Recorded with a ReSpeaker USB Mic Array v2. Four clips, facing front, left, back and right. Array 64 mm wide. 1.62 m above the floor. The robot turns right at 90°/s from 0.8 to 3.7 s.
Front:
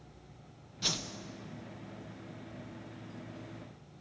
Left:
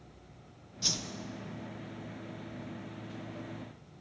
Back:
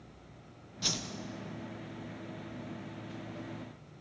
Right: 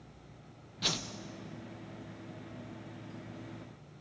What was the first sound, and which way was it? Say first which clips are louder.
A whoosh: right 3 dB, even; 85° right.